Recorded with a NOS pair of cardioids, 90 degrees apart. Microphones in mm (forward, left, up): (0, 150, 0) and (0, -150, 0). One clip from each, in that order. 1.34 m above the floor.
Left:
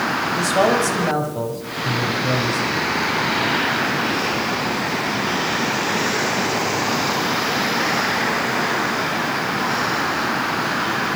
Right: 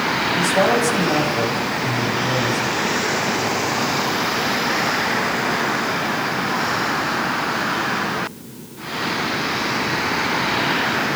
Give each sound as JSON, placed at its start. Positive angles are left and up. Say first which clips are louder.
{"t": 0.4, "sound": "a man speaking", "louder": "even", "azimuth_deg": 20, "distance_m": 7.5}